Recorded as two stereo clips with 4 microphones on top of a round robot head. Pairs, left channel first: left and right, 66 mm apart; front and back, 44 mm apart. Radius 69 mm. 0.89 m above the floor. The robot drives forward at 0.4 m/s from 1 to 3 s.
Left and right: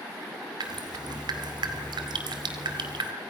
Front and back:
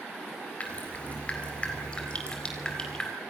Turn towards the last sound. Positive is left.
turn(degrees=-80)